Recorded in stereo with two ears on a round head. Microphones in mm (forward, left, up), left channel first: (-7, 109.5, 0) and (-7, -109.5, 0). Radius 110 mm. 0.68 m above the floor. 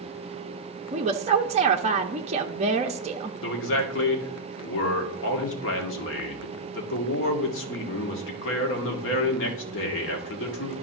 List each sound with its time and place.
0.9 s a woman speaking: 25° right (ahead or behind), 0.5 m
3.4 s a man speaking: 55° left (ahead or behind), 1.6 m